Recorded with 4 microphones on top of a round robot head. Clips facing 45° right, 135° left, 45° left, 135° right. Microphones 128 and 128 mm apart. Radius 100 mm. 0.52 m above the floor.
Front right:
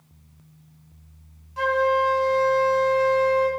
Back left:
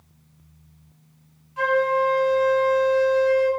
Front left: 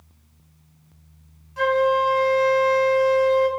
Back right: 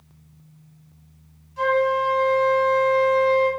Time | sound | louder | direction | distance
1.6 | a flute | even, front left 1 dB | 10° left | 3 m